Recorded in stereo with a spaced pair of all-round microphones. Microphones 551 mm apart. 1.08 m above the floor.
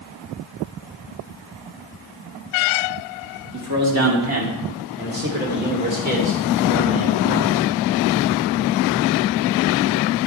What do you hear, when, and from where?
3.5 s a man speaking: 35° right (ahead or behind), 1.9 m; by 7.6 s 15° right (ahead or behind), 4 m